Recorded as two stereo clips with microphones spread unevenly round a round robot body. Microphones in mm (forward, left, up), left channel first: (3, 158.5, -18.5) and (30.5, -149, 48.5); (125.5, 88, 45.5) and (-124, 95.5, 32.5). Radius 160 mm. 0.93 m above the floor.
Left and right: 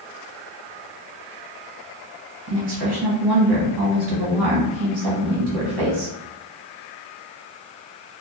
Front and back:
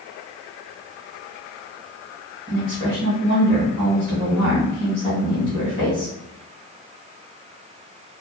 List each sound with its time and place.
2.5 s a woman speaking: 75° right, 1.5 m